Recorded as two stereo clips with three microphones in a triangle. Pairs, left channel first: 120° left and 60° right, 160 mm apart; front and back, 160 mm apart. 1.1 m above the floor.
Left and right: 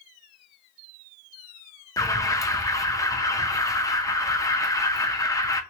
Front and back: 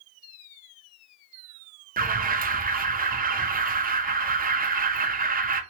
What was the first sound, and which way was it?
An alarm, 170° right.